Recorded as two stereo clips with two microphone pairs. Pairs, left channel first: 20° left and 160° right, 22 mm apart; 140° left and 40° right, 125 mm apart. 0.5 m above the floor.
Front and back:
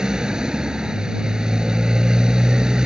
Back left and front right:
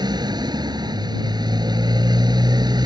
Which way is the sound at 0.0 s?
100° right.